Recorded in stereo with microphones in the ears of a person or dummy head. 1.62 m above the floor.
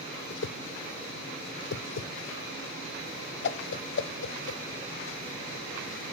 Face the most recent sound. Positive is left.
turn(degrees=70)  # may be behind; listen again after turning